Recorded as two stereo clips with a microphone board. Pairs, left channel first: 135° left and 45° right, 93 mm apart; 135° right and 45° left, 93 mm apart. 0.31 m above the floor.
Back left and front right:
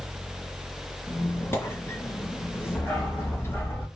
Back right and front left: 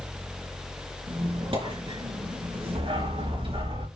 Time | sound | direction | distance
1.1 | a squeak | 70° left | 3.5 m
2.8 | a dog barking | 55° left | 8 m